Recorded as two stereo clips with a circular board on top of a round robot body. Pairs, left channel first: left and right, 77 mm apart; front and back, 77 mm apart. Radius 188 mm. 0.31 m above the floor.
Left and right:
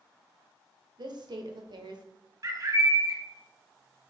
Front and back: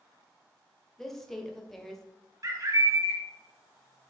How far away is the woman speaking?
About 1.8 m.